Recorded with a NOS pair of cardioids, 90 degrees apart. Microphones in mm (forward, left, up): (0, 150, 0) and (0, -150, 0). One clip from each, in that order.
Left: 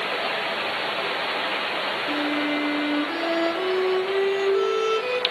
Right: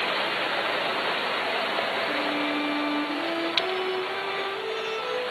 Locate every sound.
2.1 s a violin: 60° left, 3.5 m